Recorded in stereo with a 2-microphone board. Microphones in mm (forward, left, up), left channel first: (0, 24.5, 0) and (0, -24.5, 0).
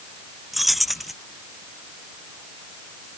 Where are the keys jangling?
5° right (ahead or behind).